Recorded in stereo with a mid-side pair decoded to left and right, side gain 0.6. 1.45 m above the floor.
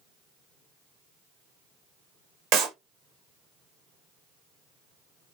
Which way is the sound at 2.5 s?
70° right.